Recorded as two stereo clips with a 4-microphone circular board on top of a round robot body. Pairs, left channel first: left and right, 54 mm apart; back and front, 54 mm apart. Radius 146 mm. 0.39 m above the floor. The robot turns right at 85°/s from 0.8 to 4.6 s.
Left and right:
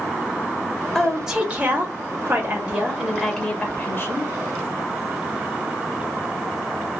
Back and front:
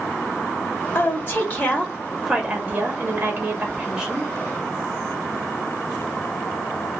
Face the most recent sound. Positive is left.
turn(degrees=120)